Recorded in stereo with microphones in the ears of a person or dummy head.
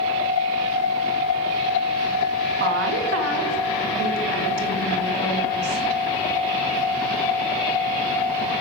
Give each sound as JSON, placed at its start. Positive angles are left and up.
{"t": 2.6, "sound": "a woman speaking", "side_deg": -60, "distance_m": 0.9}